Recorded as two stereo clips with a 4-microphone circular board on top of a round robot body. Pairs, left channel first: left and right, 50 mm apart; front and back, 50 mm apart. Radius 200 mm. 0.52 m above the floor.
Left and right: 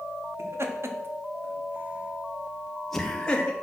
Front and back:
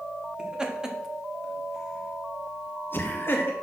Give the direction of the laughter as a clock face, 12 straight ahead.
4 o'clock.